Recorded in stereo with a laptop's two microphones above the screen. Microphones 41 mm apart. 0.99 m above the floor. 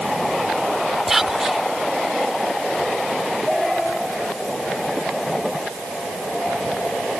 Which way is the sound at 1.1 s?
5° right (ahead or behind).